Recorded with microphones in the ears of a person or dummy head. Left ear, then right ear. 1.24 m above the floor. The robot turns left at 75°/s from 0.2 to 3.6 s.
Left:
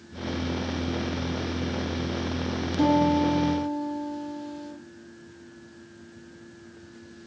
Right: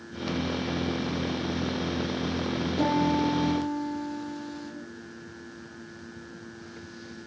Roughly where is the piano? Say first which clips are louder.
Left 4 dB; ahead.